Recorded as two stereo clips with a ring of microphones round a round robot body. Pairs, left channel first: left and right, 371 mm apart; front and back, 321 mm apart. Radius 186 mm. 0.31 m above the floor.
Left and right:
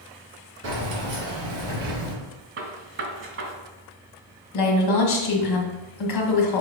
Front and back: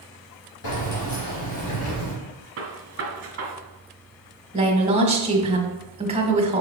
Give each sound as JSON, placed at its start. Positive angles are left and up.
{"t": 0.6, "sound": "keys jangling", "azimuth_deg": -40, "distance_m": 3.5}
{"t": 2.6, "sound": "a gunshot", "azimuth_deg": -140, "distance_m": 1.4}
{"t": 4.5, "sound": "a woman speaking", "azimuth_deg": 110, "distance_m": 1.8}